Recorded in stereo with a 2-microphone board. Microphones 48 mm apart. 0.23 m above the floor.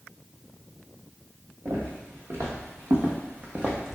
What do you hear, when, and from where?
1.6 s footsteps: 75° right (ahead or behind), 1.3 m; by 4.0 s 5° right (ahead or behind), 0.8 m